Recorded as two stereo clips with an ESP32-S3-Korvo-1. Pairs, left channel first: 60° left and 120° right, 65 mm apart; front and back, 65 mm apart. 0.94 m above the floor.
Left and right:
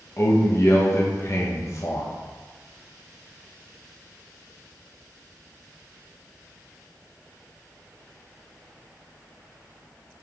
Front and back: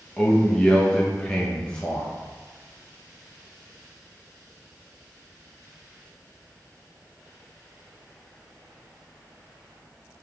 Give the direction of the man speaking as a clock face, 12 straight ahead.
10 o'clock.